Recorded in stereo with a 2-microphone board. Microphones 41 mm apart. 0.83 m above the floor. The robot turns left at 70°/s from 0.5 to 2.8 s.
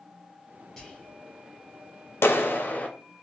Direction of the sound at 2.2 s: 85° left.